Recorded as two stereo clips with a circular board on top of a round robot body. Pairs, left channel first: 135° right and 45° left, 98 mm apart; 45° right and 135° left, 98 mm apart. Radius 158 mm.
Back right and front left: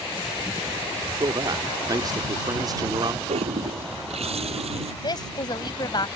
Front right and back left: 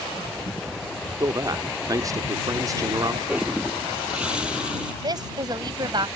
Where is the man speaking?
85° left.